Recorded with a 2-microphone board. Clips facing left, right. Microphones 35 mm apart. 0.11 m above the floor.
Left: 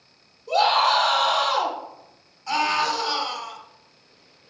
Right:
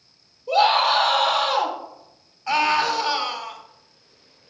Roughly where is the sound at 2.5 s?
Right.